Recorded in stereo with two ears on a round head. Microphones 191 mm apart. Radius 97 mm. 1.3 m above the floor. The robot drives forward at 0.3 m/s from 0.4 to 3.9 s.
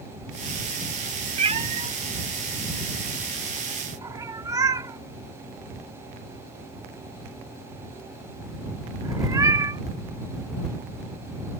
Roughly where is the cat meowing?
Right.